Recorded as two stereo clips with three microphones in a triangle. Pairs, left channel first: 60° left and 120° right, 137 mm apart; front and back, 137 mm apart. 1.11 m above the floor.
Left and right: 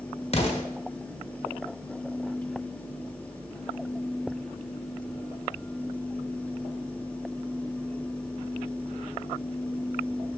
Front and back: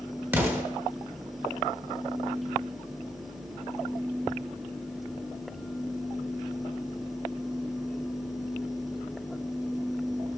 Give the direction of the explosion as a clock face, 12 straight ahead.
9 o'clock.